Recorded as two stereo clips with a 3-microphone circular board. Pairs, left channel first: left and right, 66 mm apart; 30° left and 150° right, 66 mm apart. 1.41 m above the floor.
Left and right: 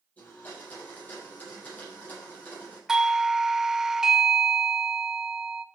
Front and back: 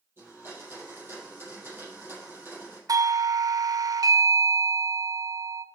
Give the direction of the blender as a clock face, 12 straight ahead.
7 o'clock.